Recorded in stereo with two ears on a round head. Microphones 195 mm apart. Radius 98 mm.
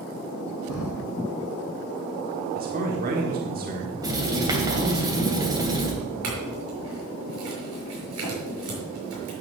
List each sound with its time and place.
0.7 s breathing: 80° left, 3.5 m
2.5 s a man speaking: 45° right (ahead or behind), 1.5 m
4.0 s writing: 20° right (ahead or behind), 3 m
6.2 s a clink: 80° right, 6 m